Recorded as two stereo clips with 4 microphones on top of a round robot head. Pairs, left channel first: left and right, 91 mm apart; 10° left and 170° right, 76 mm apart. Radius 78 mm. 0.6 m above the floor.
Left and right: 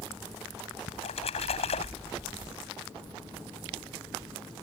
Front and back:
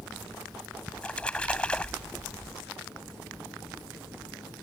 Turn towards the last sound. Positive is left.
turn(degrees=85)